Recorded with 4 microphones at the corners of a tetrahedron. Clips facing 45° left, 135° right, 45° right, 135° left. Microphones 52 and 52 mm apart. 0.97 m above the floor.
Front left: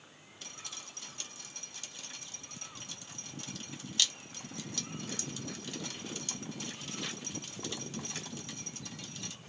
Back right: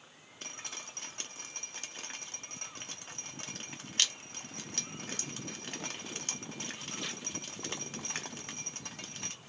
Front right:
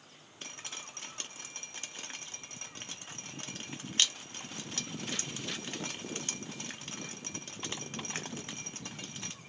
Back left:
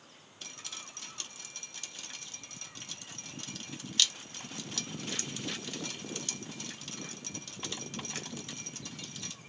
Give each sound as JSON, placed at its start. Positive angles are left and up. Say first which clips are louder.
{"t": 0.4, "sound": "dripping", "louder": "back right 3 dB, front right 2 dB", "azimuth_deg": -100, "distance_m": 0.7}